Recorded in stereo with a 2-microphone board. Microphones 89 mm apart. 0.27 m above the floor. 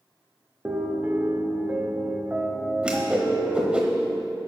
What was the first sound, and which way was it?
A piano, 20° right (ahead or behind).